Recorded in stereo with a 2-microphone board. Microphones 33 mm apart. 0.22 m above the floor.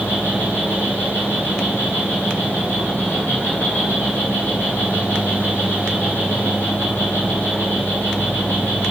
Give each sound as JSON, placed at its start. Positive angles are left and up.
{"t": 0.0, "sound": "an insect", "side_deg": 55, "distance_m": 2.5}